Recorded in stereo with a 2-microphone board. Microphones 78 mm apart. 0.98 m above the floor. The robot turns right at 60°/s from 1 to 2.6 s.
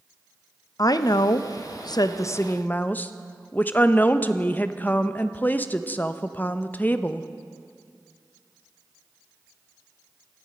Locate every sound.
0.8 s a woman speaking: 60° left, 0.5 m; by 7.3 s 155° left, 0.5 m